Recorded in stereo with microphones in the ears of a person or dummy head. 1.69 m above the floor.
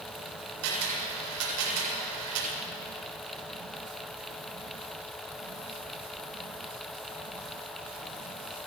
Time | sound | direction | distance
0.6 | a camera shutter | 85° right | 8 m